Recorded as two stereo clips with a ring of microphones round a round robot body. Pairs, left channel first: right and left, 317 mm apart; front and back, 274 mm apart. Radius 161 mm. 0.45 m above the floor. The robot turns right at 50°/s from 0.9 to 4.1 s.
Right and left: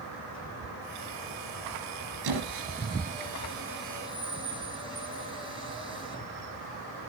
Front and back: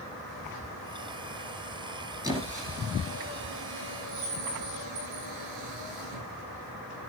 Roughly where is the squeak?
Left.